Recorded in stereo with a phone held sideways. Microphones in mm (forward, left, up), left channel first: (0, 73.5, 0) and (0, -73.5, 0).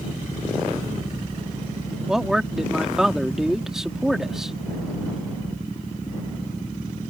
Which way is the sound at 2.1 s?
5° right (ahead or behind).